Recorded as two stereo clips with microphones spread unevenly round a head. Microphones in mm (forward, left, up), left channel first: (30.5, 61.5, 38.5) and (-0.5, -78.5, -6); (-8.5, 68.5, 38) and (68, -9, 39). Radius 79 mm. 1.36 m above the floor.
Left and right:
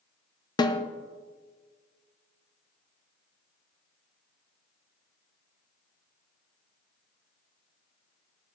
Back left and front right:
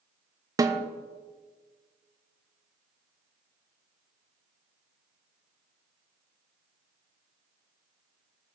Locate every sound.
0.6 s a snare drum: 10° left, 1.1 m